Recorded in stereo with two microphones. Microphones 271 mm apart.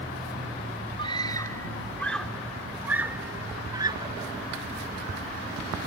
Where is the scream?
20° left (ahead or behind); by 4.3 s 20° right (ahead or behind).